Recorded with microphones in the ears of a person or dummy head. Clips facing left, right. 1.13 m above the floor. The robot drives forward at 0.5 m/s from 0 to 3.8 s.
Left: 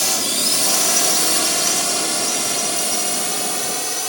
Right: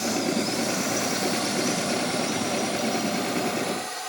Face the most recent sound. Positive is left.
turn(degrees=60)  # may be behind; listen again after turning